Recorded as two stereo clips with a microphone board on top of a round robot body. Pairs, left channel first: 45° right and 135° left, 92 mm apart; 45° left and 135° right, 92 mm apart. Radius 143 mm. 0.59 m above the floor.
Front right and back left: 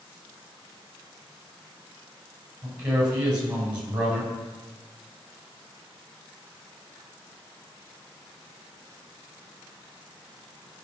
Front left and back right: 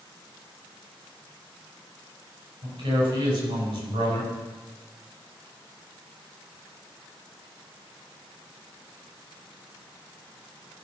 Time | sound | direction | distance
2.6 | a man speaking | 150° right | 6 m